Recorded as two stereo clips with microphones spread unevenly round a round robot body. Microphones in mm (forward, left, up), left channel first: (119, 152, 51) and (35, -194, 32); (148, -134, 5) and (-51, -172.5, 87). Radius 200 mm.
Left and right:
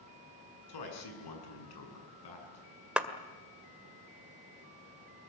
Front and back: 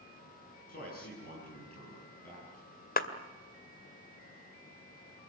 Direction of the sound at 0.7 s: 65° left.